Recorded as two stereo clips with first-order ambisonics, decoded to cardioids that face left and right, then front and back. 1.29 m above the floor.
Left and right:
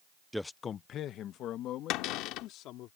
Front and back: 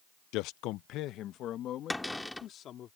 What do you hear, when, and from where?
0.3 s a man speaking: 5° right; by 2.9 s 55° left
1.9 s a cupboard door: 85° left